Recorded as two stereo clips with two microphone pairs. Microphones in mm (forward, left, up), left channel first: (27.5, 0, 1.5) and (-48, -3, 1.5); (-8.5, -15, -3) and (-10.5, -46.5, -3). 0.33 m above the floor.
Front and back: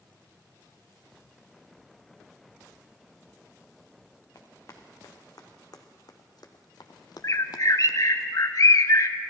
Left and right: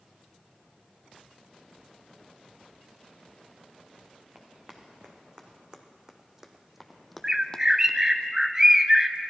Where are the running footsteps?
35° right, 2 m; by 8.2 s 45° left, 0.7 m.